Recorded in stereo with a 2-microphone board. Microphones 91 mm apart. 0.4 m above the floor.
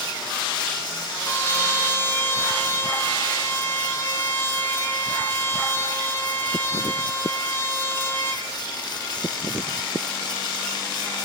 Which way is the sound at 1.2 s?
25° left (ahead or behind).